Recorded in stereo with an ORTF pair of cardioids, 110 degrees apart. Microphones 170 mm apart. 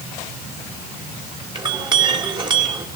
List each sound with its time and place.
1.6 s a clink: 25° right, 3 m